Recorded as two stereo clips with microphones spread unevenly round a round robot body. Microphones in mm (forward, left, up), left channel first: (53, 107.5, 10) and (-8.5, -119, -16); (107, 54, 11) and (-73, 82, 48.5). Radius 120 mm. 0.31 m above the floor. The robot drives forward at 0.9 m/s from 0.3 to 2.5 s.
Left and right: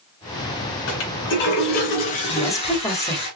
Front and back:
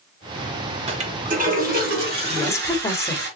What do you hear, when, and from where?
0.9 s a toilet flushing: 110° left, 1.8 m; by 3.3 s 140° left, 2.5 m
2.3 s a woman speaking: straight ahead, 1.0 m